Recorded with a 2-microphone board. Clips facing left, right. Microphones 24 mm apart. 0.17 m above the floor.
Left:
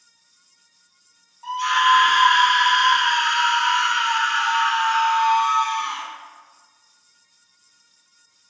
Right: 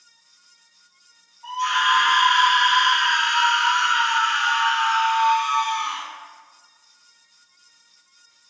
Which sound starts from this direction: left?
A scream, at 1.4 s.